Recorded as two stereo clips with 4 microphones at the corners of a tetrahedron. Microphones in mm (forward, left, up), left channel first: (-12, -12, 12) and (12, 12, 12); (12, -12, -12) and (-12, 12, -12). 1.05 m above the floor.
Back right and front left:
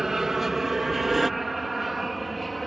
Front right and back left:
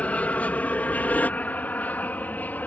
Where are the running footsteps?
No running footsteps in this recording.